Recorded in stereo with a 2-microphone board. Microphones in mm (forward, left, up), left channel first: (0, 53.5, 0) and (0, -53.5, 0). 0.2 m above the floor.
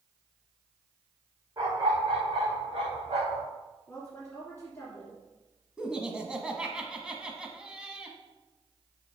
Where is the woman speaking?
20° left (ahead or behind), 2 m.